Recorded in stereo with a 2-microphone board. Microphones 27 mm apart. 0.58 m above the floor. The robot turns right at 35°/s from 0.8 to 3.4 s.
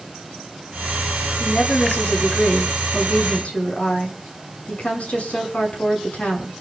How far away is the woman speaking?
About 6.5 m.